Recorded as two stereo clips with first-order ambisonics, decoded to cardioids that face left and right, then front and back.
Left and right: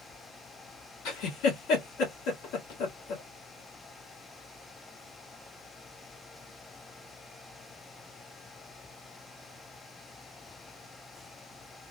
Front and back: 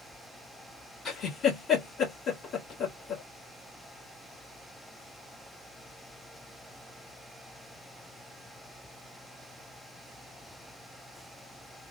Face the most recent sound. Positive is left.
turn(degrees=65)